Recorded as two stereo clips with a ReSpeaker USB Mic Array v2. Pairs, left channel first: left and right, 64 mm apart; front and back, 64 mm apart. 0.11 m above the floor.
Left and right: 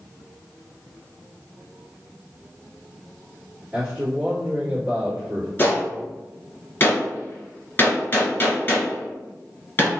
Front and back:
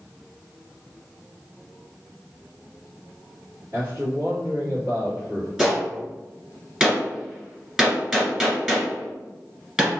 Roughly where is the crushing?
I don't hear crushing.